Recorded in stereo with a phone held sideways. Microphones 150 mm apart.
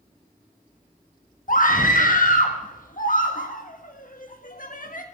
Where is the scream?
65° left (ahead or behind), 1.5 m.